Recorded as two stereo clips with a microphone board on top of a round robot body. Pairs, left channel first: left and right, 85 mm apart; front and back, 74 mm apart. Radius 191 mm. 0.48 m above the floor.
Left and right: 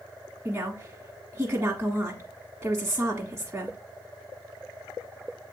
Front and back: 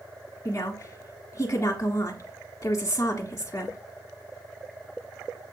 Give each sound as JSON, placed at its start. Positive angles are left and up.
{"t": 0.5, "sound": "a woman speaking", "azimuth_deg": -35, "distance_m": 1.5}